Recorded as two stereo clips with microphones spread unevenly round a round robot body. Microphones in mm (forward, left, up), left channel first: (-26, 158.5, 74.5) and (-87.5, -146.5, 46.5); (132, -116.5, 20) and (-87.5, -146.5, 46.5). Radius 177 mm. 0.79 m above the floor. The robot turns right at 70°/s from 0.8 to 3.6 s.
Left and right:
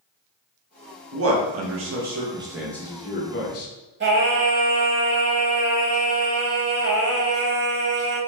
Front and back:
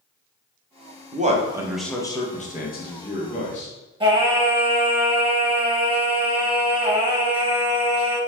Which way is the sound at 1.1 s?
125° right.